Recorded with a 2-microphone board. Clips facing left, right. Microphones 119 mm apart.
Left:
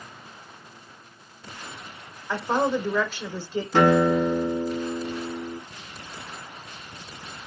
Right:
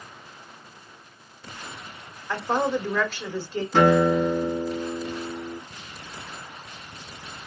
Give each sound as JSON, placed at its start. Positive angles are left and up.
{"t": 2.3, "sound": "a woman speaking", "side_deg": 10, "distance_m": 1.3}
{"t": 3.7, "sound": "a guitar", "side_deg": 5, "distance_m": 4.0}